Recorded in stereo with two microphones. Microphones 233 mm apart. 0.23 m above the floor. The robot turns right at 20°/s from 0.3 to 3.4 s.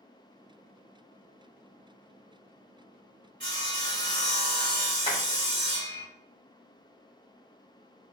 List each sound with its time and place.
3.4 s sawing: 45° right (ahead or behind), 1.1 m
5.0 s tapping: 25° left (ahead or behind), 1.6 m